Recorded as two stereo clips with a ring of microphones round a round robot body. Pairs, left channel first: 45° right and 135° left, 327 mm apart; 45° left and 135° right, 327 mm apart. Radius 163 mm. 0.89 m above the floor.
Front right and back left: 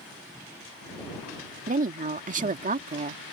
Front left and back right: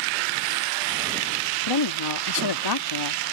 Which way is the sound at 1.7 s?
70° left.